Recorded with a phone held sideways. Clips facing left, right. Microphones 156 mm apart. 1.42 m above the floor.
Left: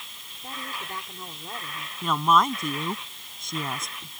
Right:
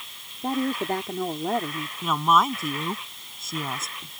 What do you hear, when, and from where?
0.4 s a woman speaking: 75° right (ahead or behind)
2.0 s a woman speaking: centre (ahead or behind)